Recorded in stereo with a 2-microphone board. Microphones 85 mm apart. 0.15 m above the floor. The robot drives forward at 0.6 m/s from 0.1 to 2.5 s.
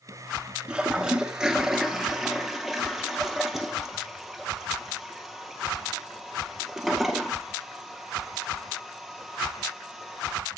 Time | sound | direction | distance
0.7 | a toilet flushing | 10° right (ahead or behind) | 0.8 m